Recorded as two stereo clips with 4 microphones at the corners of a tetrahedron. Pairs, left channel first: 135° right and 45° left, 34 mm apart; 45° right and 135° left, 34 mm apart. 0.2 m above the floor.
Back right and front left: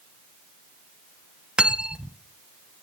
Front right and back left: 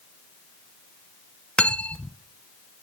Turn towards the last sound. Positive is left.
turn(degrees=-5)